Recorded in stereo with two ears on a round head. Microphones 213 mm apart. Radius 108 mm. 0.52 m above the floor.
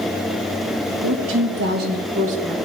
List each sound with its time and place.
1.0 s a woman speaking: 60° right (ahead or behind), 2.5 m; by 2.5 s 25° right (ahead or behind), 2.5 m